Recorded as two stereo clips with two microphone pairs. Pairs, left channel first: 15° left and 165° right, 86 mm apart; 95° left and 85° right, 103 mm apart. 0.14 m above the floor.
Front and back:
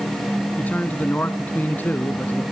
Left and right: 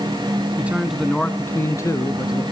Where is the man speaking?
30° right, 1.6 m; by 2.4 s 75° left, 2 m.